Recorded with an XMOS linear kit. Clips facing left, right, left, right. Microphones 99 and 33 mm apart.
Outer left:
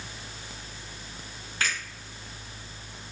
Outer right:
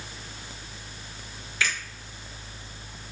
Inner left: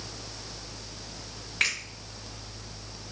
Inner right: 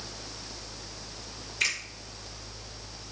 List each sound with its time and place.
1.6 s a finger snap: 40° left (ahead or behind), 1.5 m